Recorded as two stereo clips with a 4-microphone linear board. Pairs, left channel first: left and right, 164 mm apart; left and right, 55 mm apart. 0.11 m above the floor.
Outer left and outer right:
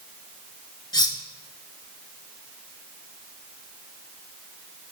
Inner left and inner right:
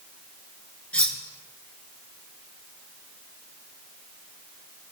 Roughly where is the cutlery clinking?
Left.